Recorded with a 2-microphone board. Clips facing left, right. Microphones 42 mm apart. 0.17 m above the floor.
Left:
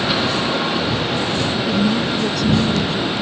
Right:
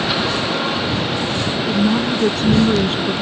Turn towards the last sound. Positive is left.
turn(degrees=-55)  # may be behind; listen again after turning